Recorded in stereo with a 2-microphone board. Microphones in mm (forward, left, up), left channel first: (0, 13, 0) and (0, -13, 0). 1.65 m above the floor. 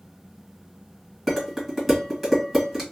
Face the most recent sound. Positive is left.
turn(degrees=0)  # may be behind; listen again after turning